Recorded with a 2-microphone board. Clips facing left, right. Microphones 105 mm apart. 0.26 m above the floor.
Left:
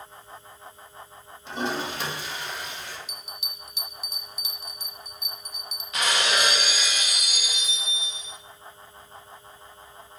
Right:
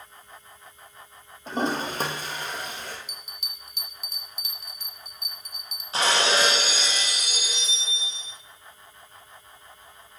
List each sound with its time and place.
1.5 s a toilet flushing: 40° right (ahead or behind), 1.9 m
3.1 s a bell: 50° right (ahead or behind), 1.2 m
5.9 s breaking glass: 30° right (ahead or behind), 0.9 m